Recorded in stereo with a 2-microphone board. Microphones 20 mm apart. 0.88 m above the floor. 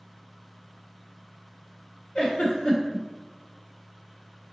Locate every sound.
2.1 s a giggle: 60° left (ahead or behind), 1.1 m